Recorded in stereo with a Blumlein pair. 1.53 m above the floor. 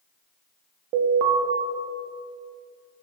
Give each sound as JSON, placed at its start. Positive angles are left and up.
{"t": 0.9, "sound": "an alarm", "azimuth_deg": -40, "distance_m": 1.9}